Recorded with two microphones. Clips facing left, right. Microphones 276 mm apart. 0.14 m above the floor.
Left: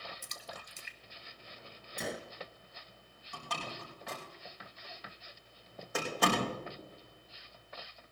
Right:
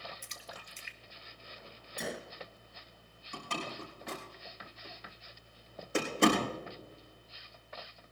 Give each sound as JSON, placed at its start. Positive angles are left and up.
{"t": 0.2, "sound": "a splash", "side_deg": 45, "distance_m": 1.0}
{"t": 2.0, "sound": "a gunshot", "side_deg": 0, "distance_m": 0.6}
{"t": 3.3, "sound": "a door slam", "side_deg": -30, "distance_m": 5.5}